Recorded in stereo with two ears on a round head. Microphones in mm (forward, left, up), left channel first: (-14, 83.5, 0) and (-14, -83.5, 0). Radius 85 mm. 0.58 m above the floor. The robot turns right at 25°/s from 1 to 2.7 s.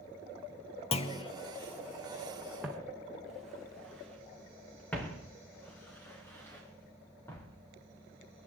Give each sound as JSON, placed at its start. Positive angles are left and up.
{"t": 0.9, "sound": "a clunk", "side_deg": 35, "distance_m": 0.9}
{"t": 2.6, "sound": "footsteps", "side_deg": -5, "distance_m": 2.5}